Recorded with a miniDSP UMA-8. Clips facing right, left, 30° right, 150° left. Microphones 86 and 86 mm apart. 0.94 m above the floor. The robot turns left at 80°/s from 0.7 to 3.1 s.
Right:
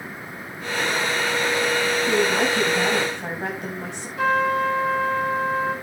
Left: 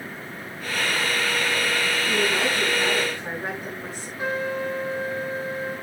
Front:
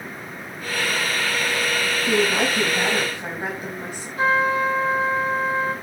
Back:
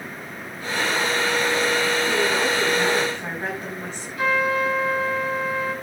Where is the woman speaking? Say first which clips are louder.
Right 3 dB, front 1 dB; 25° right, 5.5 m; by 4.1 s 110° right, 5.5 m.